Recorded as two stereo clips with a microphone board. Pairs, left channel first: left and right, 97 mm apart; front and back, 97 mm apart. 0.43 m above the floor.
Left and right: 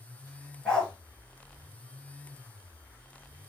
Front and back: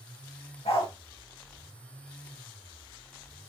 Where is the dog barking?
10° left, 2.5 m.